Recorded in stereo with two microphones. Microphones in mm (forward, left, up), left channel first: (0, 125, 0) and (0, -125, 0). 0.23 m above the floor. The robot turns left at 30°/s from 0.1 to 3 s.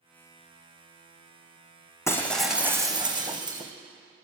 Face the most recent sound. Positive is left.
turn(degrees=-15)  # may be behind; listen again after turning